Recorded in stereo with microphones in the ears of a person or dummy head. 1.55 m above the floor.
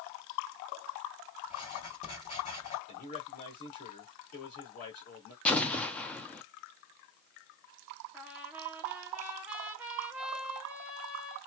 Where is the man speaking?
40° left (ahead or behind), 2.0 m.